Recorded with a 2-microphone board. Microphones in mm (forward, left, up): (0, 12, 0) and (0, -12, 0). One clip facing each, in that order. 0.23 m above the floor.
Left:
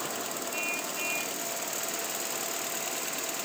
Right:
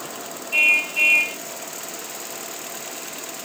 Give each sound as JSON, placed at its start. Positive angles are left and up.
{"t": 0.5, "sound": "a car horn", "side_deg": -85}